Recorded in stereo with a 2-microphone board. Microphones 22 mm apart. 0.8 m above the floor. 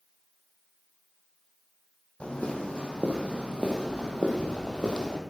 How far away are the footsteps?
About 2 m.